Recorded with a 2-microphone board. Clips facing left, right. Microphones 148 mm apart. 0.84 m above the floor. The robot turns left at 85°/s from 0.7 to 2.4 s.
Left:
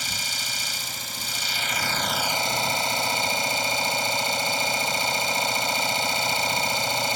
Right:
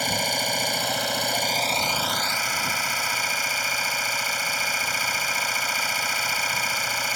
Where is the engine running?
60° right; by 7.2 s 155° left.